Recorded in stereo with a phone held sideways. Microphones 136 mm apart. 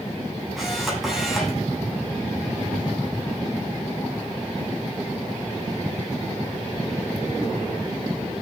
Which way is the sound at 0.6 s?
Centre (ahead or behind).